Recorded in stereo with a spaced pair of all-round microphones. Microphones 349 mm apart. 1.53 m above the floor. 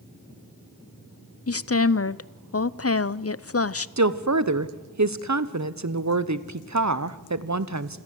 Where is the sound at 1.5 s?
40° left (ahead or behind), 0.5 m.